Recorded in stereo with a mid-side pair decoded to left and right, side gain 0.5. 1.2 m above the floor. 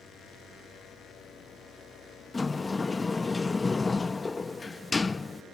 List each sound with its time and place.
2.3 s a sliding door: 20° left